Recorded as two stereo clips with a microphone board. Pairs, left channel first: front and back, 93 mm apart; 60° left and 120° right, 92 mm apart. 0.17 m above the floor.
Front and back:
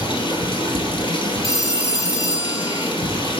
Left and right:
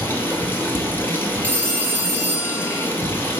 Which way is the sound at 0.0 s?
5° right.